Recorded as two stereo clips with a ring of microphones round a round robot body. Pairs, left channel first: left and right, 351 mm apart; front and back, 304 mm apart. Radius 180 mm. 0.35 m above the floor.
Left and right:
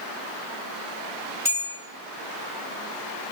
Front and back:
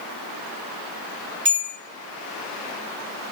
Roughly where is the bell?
Behind.